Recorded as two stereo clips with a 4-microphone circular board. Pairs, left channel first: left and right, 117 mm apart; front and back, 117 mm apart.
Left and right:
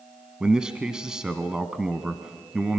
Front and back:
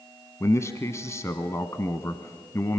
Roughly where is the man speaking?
Ahead.